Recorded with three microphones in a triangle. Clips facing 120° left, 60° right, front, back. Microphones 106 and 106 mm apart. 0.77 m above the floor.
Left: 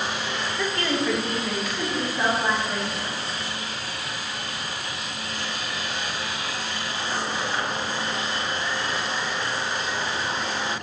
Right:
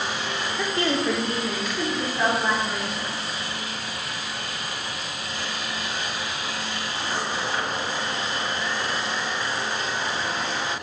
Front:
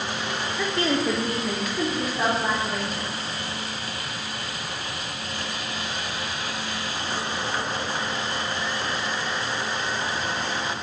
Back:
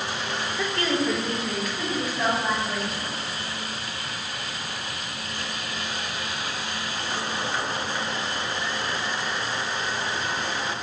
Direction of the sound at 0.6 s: 105° right.